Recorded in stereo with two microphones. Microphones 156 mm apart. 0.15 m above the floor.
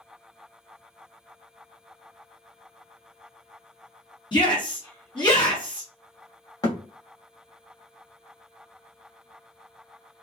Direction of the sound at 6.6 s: 25° left (ahead or behind).